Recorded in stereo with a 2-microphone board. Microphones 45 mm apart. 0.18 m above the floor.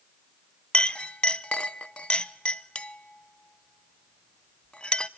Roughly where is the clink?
Left.